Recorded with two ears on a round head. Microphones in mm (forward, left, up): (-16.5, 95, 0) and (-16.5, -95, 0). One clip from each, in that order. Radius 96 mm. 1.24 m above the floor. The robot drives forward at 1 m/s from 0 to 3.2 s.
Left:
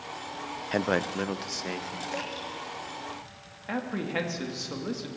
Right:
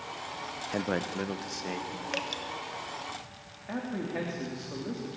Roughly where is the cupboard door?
I don't hear a cupboard door.